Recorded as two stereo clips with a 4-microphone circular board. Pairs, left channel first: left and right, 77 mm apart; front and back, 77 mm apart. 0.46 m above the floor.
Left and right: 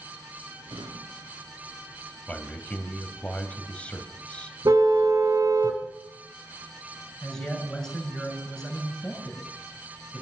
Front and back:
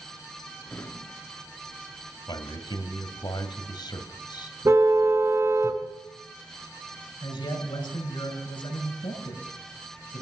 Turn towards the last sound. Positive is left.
turn(degrees=10)